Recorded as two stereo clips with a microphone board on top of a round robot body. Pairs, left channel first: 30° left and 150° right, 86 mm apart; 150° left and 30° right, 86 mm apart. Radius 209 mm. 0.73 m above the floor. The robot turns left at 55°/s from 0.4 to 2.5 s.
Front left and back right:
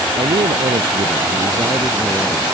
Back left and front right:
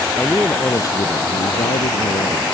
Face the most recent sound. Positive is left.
turn(degrees=110)